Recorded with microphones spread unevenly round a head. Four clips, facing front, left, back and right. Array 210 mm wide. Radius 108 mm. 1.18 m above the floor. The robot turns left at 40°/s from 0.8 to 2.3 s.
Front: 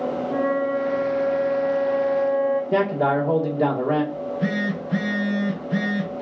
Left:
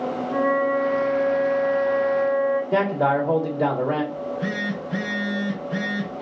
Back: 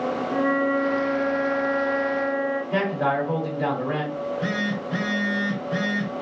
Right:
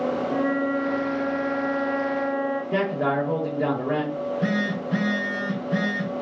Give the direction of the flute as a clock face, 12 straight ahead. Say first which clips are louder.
Left 7 dB, even; 11 o'clock.